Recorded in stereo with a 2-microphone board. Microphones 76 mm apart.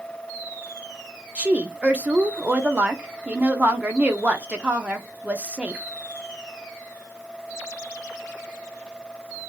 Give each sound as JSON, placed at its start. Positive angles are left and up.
{"t": 1.4, "sound": "a woman speaking", "side_deg": -20, "distance_m": 0.8}